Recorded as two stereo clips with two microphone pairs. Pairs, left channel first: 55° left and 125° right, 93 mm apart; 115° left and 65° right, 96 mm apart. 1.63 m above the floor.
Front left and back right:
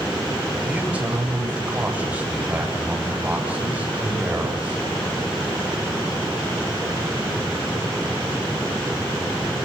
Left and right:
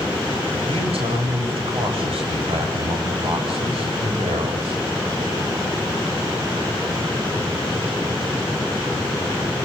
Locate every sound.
0.7 s a man speaking: 50° right, 8 m